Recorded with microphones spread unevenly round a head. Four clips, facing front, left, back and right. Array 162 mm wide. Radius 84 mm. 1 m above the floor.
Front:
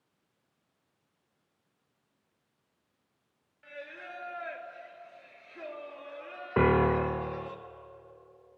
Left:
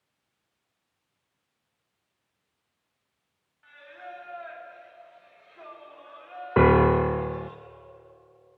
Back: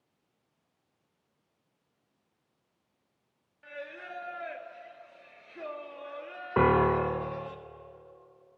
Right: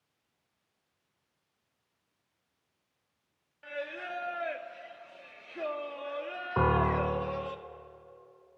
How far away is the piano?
About 0.5 m.